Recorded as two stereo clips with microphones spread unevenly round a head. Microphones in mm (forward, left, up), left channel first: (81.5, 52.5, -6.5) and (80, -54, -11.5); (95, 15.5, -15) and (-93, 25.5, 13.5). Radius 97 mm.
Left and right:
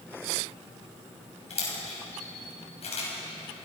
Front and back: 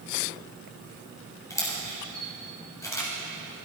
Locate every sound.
1.5 s a camera shutter: 75° left, 7 m